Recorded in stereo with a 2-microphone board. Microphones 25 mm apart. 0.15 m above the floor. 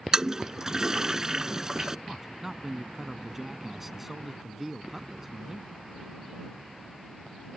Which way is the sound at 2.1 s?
10° right (ahead or behind).